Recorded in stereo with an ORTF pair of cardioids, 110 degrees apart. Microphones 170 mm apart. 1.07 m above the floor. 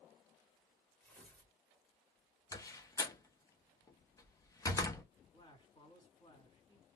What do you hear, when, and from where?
1.0 s tearing paper: 10° left, 2.0 m
2.5 s a door slam: 20° left, 0.7 m
5.3 s a man speaking: 25° left, 2.5 m